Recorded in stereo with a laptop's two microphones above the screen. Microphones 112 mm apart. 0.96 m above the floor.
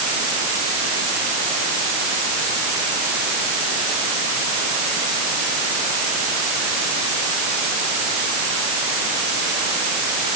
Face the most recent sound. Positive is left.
No sound to turn to.